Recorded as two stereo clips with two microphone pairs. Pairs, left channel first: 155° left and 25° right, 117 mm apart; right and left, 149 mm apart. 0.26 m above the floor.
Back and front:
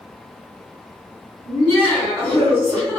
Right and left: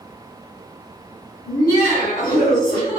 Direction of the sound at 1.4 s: 145° right.